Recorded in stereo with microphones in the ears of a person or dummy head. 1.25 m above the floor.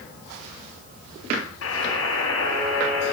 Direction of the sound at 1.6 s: 85° left.